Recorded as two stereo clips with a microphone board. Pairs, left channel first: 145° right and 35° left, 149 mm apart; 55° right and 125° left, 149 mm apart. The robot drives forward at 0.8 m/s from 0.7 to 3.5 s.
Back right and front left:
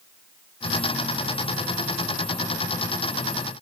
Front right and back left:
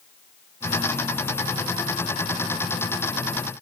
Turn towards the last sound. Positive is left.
No sound to turn to.